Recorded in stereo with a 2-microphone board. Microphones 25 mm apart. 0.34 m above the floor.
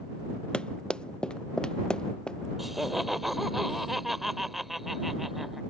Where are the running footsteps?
45° left (ahead or behind); by 2.4 s 40° left (ahead or behind).